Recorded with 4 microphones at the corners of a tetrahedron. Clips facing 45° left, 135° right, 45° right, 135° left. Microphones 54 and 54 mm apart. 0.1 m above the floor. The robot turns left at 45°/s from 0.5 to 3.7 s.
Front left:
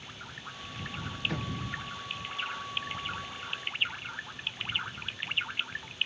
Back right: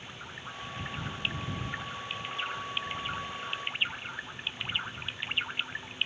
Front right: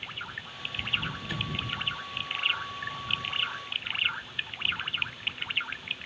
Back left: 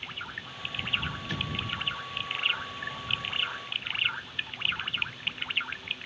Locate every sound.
1.3 s an explosion: 40° left; by 1.5 s 30° left